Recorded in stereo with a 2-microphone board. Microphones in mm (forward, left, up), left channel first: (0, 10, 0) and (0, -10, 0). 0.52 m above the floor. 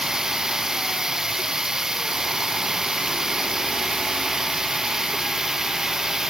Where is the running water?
35° right (ahead or behind).